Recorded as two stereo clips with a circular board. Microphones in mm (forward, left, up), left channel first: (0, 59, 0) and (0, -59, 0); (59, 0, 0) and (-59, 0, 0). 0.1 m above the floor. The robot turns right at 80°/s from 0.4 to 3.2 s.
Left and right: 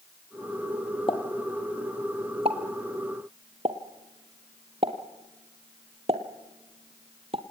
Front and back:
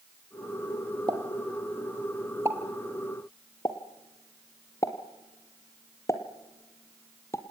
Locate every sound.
1.1 s a pop: 130° left, 1.9 m; by 7.4 s 60° right, 1.9 m